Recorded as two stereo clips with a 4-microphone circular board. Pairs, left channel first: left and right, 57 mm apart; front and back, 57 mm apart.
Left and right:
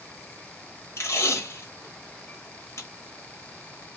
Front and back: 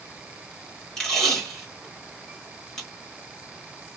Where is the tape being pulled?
80° left, 1.3 m.